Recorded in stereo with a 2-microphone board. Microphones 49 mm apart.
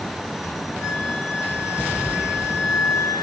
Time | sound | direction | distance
0.8 | a flute | 70° left (ahead or behind) | 4 m